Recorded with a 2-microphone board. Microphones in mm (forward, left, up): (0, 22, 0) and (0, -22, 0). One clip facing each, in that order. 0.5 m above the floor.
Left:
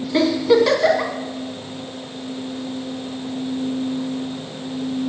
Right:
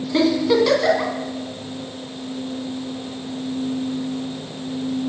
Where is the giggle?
10° left (ahead or behind), 1.4 m.